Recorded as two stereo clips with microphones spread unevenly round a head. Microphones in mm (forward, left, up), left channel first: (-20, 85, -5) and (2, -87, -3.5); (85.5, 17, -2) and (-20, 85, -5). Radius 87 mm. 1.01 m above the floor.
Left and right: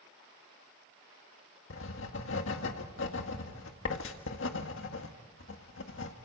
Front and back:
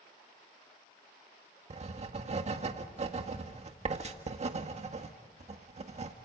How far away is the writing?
About 1.7 m.